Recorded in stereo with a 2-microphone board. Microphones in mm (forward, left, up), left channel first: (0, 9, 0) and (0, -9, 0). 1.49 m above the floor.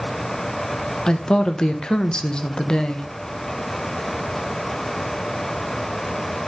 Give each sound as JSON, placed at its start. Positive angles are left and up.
{"t": 1.1, "sound": "a woman speaking", "side_deg": 45, "distance_m": 0.8}